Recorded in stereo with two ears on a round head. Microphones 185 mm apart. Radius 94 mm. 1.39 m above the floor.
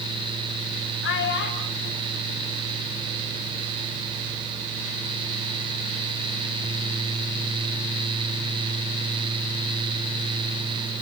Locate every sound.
1.0 s a child speaking: 65° left (ahead or behind), 3.5 m; by 3.4 s 55° left (ahead or behind), 6.5 m